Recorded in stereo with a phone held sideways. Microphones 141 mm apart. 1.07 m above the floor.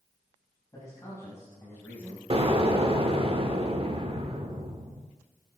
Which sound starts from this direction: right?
An explosion, at 2.3 s.